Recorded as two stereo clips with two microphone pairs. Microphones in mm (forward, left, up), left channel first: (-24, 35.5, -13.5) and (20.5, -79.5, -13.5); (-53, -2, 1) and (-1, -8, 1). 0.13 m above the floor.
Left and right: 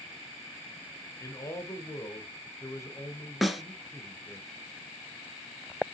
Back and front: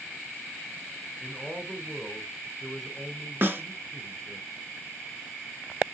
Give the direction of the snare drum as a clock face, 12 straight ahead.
11 o'clock.